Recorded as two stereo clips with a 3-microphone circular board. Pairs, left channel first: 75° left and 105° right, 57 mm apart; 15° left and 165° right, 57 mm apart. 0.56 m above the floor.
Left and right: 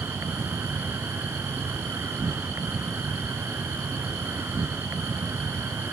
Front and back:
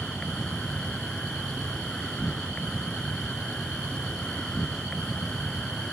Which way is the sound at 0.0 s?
60° right.